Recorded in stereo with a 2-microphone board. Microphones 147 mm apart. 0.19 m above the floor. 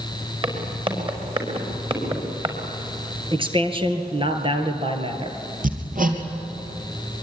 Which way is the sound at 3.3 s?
35° right (ahead or behind).